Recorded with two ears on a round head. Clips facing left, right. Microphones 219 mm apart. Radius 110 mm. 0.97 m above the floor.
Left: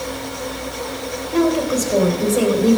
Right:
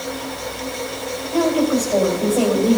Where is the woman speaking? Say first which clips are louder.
Even; 40° left (ahead or behind), 3.5 m.